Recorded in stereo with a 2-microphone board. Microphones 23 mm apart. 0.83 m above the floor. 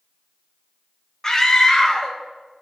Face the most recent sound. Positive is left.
turn(degrees=25)  # may be behind; listen again after turning